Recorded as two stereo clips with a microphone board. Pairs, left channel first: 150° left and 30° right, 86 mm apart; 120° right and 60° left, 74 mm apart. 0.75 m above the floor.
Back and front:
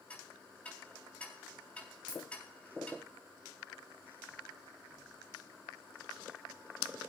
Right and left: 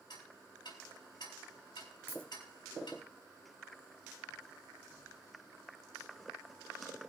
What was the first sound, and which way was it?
Ticking, 135° right.